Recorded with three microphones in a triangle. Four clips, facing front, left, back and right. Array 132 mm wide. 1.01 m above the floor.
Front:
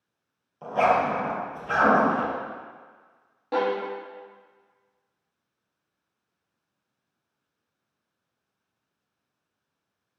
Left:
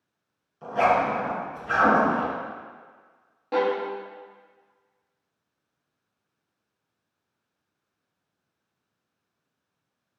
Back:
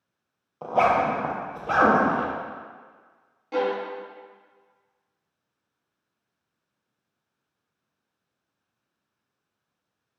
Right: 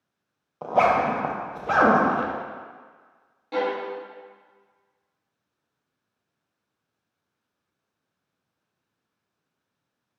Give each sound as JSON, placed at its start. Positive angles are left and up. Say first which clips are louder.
{"t": 0.6, "sound": "a zipper", "louder": "right 2 dB, back 1 dB", "azimuth_deg": -120, "distance_m": 0.6}
{"t": 3.5, "sound": "a violin", "louder": "left 2 dB, even", "azimuth_deg": 35, "distance_m": 0.7}